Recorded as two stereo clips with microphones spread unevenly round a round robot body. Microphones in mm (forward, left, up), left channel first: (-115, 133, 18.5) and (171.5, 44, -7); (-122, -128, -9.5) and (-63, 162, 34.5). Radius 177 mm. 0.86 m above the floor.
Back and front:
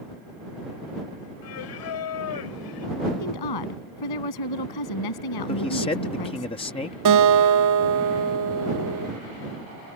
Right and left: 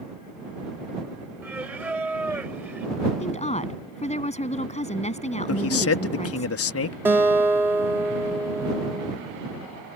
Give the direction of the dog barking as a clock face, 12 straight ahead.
No dog barking in this recording.